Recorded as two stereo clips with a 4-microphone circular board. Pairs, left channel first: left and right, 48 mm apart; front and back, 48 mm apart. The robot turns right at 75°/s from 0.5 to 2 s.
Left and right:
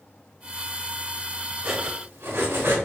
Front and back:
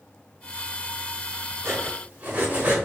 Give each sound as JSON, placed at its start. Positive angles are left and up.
{"t": 1.6, "sound": "cutlery clinking", "azimuth_deg": -145, "distance_m": 3.0}